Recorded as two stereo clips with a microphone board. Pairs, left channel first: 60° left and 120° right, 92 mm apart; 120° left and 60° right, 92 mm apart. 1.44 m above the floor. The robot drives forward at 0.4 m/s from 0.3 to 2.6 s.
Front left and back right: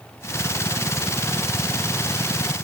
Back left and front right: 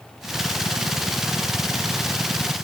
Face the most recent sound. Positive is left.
No sound to turn to.